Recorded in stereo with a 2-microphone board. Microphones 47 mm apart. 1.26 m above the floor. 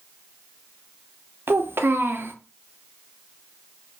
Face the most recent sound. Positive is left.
turn(degrees=-55)  # may be behind; listen again after turning